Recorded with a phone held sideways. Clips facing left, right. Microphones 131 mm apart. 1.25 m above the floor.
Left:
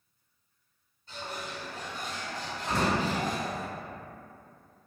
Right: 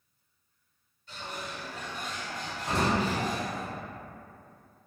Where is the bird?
35° left (ahead or behind), 1.8 m.